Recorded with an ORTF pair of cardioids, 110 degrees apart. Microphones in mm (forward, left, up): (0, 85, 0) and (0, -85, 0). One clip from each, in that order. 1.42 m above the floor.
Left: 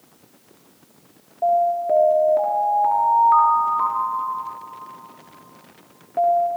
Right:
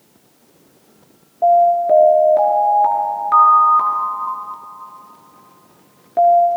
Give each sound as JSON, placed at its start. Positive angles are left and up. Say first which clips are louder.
{"t": 1.4, "sound": "an alarm", "louder": "right 7 dB", "azimuth_deg": -30, "distance_m": 4.5}